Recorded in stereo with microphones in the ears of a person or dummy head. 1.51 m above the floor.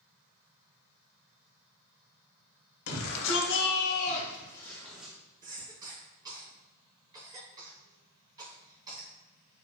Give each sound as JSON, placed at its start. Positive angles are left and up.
{"t": 2.9, "sound": "a shout", "side_deg": 80, "distance_m": 1.0}
{"t": 5.4, "sound": "a cough", "side_deg": -20, "distance_m": 2.0}